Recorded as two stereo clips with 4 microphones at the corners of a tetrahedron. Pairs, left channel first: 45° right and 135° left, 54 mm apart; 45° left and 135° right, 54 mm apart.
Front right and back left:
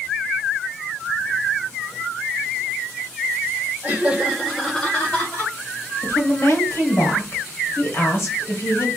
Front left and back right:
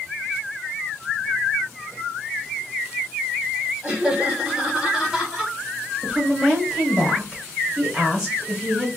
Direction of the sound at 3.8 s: 165° left.